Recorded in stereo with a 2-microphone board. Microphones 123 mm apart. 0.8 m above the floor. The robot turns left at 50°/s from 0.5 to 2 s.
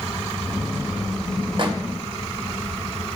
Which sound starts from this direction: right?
A microwave, at 1.6 s.